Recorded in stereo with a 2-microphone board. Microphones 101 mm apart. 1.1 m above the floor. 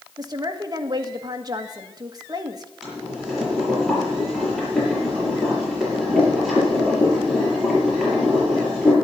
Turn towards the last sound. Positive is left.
turn(degrees=0)  # may be behind; listen again after turning